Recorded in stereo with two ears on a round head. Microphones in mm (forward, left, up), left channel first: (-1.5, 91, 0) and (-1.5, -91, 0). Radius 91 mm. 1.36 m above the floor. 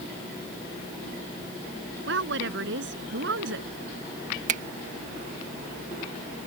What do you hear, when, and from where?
2.1 s a woman speaking: 65° right (ahead or behind)
4.5 s a finger snap: 40° right (ahead or behind)